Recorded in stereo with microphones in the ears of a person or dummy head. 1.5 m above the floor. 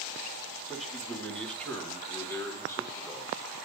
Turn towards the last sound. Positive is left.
turn(degrees=20)  # may be behind; listen again after turning